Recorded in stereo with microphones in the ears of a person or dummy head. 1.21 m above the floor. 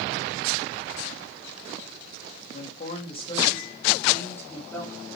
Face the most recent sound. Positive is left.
turn(degrees=5)  # may be behind; listen again after turning